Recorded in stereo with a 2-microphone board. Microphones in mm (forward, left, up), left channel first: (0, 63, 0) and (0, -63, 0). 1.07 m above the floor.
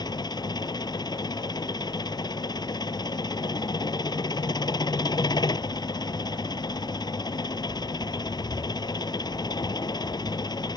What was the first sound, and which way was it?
An engine running, 35° left (ahead or behind).